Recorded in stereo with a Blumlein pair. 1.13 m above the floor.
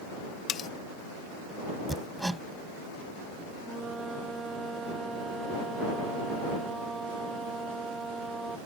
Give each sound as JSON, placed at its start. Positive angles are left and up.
{"t": 0.5, "sound": "cutlery clinking", "azimuth_deg": 25}
{"t": 1.9, "sound": "hammering", "azimuth_deg": -5}
{"t": 3.6, "sound": "a flute", "azimuth_deg": -10}